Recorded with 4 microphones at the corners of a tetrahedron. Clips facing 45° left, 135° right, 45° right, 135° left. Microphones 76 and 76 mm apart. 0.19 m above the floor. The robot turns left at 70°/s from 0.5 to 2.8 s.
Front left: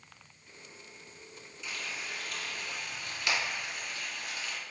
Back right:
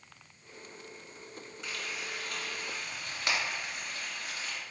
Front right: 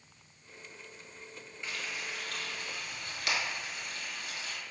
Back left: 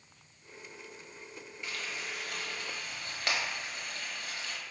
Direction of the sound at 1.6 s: 100° right.